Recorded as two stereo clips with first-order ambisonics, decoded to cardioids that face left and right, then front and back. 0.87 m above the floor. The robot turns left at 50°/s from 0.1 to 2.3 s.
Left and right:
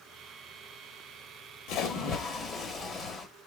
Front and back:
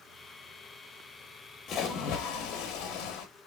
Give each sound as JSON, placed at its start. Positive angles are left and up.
{"t": 1.7, "sound": "a splash", "azimuth_deg": 55, "distance_m": 1.2}